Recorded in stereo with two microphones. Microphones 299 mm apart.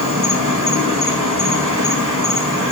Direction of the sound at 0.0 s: 75° right (ahead or behind).